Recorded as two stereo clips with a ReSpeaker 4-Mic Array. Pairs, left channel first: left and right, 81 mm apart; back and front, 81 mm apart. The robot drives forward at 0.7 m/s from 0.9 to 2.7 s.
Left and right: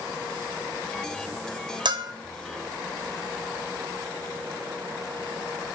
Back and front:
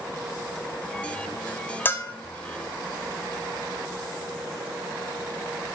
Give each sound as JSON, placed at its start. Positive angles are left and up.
{"t": 1.9, "sound": "a bell", "azimuth_deg": -115, "distance_m": 0.6}